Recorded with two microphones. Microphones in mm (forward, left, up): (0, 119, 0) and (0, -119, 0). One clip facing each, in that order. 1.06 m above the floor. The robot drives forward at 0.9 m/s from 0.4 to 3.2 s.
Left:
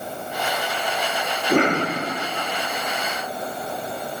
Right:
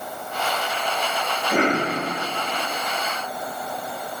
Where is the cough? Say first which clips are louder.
Left 2 dB; 55° left (ahead or behind), 2.5 m; by 1.9 s 50° left (ahead or behind), 2.5 m.